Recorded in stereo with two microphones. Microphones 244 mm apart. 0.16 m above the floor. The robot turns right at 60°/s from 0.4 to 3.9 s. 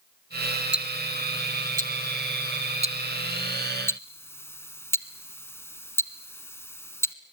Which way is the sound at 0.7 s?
5° right (ahead or behind).